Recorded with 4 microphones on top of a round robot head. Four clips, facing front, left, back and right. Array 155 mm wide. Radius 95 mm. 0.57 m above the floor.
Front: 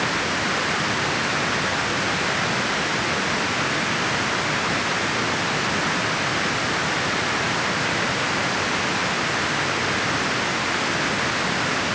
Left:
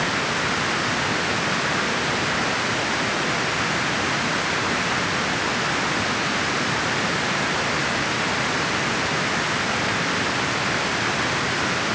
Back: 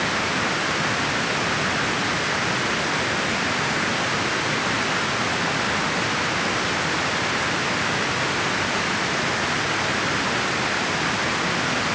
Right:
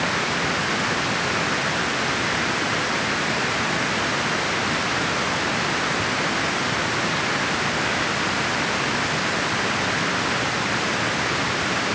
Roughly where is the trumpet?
No trumpet in this recording.